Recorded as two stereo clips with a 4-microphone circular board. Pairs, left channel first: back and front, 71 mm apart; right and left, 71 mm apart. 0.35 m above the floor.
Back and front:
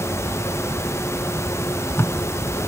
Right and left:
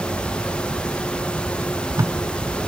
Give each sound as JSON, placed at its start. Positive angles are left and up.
{"t": 1.6, "sound": "tape being pulled", "azimuth_deg": 130}